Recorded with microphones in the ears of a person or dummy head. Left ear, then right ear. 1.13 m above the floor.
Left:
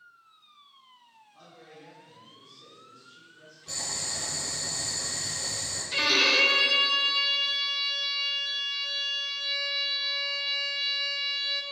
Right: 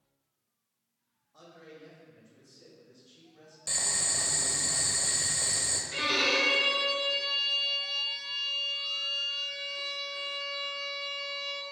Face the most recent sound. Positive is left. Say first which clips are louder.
# left 5 dB
turn(degrees=20)  # may be behind; listen again after turning